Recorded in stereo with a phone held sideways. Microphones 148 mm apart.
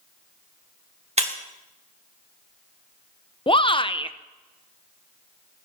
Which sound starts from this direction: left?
A shout, at 3.5 s.